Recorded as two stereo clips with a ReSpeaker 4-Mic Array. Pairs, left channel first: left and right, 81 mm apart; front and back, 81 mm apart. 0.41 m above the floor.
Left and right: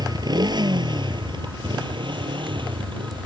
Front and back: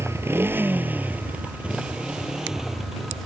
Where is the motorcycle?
125° right; by 3.3 s 90° right.